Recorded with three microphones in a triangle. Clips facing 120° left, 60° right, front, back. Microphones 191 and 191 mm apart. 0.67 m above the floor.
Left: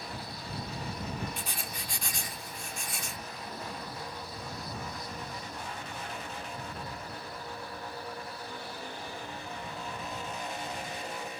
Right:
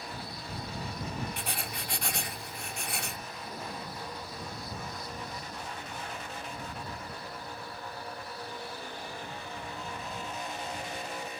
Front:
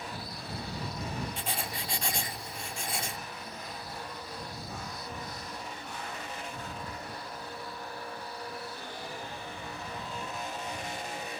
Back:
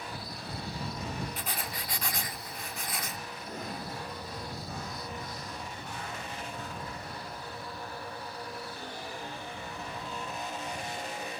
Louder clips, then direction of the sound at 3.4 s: Right 1 dB, back 4 dB; 140° right.